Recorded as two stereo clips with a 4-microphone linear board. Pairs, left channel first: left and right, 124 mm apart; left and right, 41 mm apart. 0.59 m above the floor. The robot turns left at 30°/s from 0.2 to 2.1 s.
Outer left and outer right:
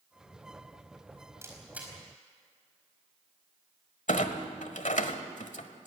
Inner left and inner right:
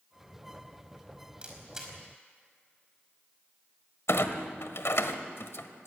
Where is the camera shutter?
20° right (ahead or behind), 4.5 m; by 1.9 s 5° right (ahead or behind), 4.5 m.